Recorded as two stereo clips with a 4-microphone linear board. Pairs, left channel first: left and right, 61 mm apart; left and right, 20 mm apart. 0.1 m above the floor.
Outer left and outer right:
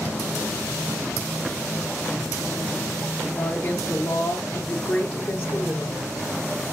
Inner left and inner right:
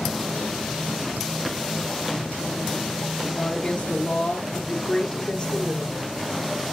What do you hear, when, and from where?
3.3 s a woman speaking: 25° left (ahead or behind), 1.4 m; by 6.0 s 10° left (ahead or behind), 1.4 m